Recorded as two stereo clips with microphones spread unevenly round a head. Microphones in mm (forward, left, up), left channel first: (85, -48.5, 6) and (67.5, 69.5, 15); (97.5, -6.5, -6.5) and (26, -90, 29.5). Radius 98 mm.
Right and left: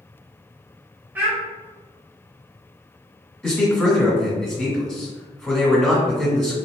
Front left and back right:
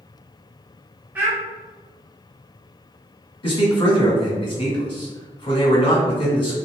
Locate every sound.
1.1 s a child speaking: 170° left, 0.6 m
3.4 s a man speaking: 5° left, 1.9 m